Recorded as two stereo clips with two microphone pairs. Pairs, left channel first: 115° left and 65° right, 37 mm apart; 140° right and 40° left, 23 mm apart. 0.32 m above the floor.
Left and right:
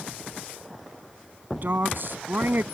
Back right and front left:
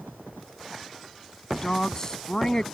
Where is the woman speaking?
85° right.